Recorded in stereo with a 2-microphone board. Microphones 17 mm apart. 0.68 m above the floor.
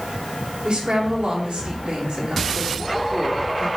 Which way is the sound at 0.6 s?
70° right (ahead or behind).